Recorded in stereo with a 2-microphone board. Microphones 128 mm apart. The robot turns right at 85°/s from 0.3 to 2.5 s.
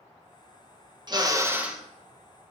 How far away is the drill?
About 0.8 m.